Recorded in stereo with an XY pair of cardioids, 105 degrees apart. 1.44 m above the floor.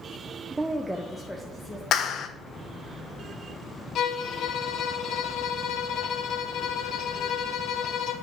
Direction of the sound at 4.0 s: 65° left.